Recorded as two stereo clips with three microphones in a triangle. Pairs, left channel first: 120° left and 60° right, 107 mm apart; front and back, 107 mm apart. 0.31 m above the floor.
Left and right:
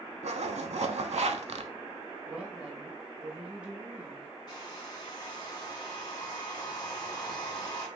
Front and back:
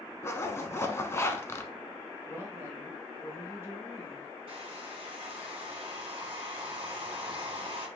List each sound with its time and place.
0.2 s a zipper: 65° right, 0.5 m
2.3 s a woman speaking: 130° right, 1.1 m
4.5 s a hair dryer: 160° left, 1.5 m